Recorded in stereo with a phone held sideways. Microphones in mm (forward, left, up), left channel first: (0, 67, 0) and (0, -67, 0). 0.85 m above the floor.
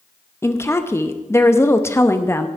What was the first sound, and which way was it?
A woman speaking, 20° left (ahead or behind).